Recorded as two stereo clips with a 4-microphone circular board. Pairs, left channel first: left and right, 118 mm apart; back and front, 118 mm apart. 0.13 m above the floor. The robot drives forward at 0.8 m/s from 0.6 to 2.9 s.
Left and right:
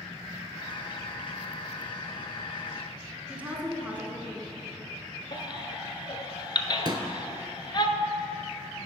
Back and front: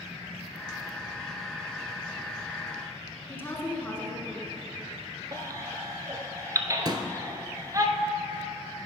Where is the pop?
45° right, 0.6 m.